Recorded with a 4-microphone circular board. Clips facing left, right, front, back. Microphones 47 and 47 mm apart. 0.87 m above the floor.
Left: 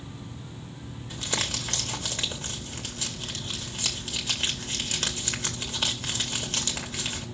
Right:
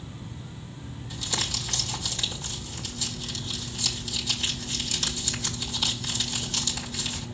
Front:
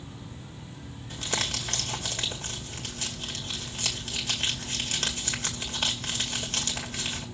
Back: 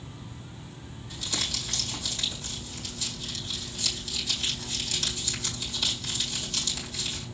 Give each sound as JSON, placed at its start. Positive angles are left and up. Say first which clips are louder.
{"t": 1.1, "sound": "crumpling", "louder": "left 1 dB, front 2 dB", "azimuth_deg": 40, "distance_m": 2.5}